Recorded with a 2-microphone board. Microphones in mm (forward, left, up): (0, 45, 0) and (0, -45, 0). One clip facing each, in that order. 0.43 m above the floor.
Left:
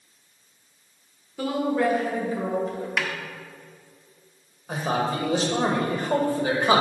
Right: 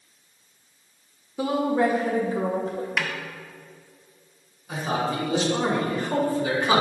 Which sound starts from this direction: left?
A man speaking, at 4.7 s.